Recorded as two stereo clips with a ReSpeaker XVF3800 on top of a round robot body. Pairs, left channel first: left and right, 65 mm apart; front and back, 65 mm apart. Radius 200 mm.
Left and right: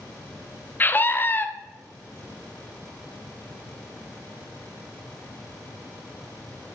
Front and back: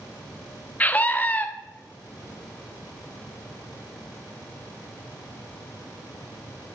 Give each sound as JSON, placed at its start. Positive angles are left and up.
{"t": 0.8, "sound": "a scream", "azimuth_deg": 50, "distance_m": 1.2}